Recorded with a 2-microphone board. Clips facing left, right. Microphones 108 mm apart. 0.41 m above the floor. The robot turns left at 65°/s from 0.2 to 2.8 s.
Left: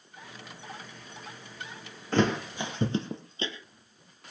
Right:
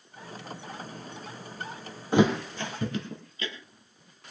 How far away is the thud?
About 2.5 m.